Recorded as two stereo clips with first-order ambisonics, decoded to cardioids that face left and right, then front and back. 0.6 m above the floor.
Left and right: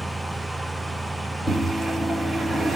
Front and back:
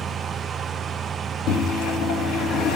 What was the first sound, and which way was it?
A microwave, straight ahead.